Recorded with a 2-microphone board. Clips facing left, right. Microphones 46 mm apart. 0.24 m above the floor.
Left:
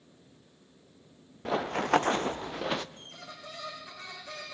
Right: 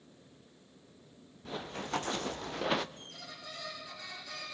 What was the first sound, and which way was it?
Running footsteps, 75° left (ahead or behind).